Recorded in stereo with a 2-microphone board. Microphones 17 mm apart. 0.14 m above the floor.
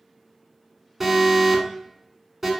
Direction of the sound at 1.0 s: 10° right (ahead or behind).